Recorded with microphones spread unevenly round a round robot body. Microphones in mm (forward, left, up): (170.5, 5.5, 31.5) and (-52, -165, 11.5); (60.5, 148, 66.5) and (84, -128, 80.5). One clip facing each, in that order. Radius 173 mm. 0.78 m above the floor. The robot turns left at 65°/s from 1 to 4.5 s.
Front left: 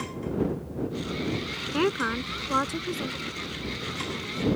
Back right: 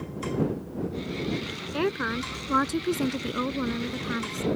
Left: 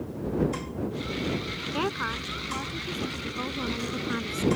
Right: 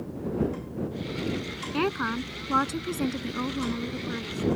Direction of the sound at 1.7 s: 25° right.